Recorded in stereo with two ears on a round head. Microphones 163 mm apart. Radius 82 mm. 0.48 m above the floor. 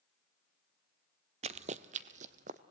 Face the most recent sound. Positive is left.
turn(degrees=-40)  # may be behind; listen again after turning